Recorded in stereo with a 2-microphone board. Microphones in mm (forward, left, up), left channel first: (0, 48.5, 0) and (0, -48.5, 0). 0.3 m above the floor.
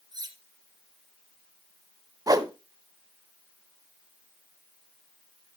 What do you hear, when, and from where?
0.1 s cutlery clinking: 45° right (ahead or behind), 1.9 m
2.3 s a whoosh: 40° right (ahead or behind), 0.7 m